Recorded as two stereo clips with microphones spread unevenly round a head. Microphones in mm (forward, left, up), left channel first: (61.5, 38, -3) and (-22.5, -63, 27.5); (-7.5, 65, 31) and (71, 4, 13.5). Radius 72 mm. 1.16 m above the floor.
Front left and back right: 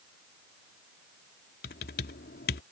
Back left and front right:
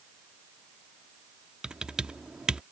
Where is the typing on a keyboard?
50° left.